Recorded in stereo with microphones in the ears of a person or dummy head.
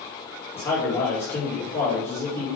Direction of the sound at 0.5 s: 10° left (ahead or behind).